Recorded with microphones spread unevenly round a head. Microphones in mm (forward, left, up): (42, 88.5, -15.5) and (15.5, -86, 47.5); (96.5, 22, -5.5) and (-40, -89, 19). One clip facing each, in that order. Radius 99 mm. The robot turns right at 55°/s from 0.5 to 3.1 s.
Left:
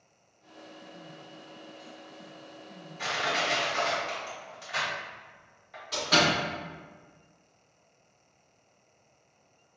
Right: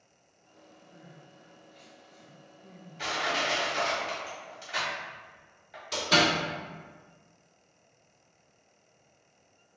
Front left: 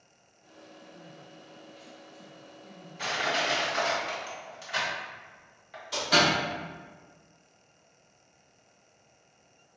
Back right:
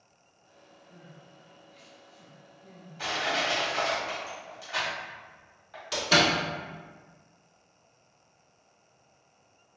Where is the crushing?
35° right, 1.4 m; by 5.8 s 25° right, 1.4 m.